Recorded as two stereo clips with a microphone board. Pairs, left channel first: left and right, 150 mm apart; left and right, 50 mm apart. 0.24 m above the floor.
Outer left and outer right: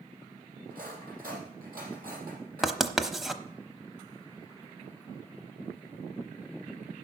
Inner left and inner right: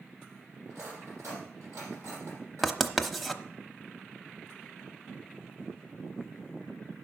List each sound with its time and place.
0.7 s cutlery clinking: 75° right (ahead or behind), 5 m
2.6 s writing: centre (ahead or behind), 0.8 m